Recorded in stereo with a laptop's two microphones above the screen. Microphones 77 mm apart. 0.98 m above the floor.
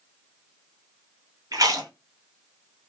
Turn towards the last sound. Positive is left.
turn(degrees=-50)  # may be behind; listen again after turning